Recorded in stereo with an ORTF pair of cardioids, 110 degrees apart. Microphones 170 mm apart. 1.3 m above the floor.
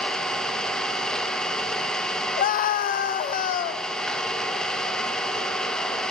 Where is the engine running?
5° left, 1.2 m.